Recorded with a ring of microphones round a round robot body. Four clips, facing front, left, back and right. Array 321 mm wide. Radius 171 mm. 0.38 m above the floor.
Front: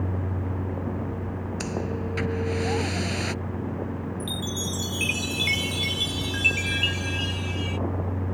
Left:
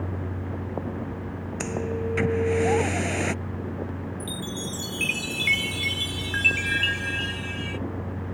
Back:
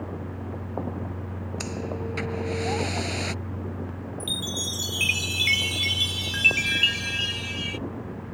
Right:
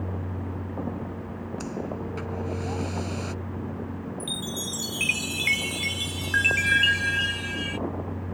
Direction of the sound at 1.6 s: 80° left.